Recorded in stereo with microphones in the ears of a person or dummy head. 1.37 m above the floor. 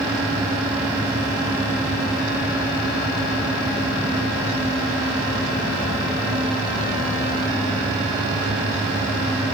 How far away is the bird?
I don't hear a bird.